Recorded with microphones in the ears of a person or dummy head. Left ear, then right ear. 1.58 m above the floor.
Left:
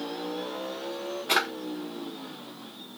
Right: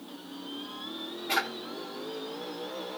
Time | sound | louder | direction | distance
1.3 | a drawer | left 4 dB | 25° left (ahead or behind) | 0.9 m